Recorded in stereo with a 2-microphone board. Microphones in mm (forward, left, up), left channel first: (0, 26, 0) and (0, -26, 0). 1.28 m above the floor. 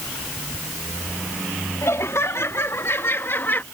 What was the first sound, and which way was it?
Laughter, 65° left (ahead or behind).